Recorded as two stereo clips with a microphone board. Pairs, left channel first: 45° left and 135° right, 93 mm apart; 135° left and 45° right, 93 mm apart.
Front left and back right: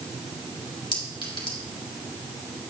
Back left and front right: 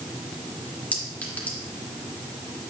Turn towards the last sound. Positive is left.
turn(degrees=65)